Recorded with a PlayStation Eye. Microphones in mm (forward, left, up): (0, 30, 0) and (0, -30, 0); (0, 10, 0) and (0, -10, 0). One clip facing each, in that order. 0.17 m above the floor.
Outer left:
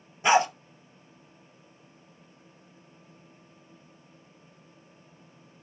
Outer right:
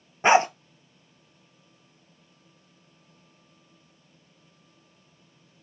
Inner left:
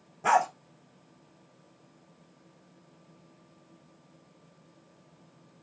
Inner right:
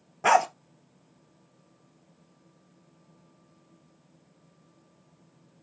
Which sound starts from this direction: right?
A dog barking, at 0.2 s.